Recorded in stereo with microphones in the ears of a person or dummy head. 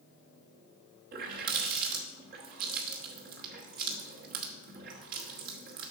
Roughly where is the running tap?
Right.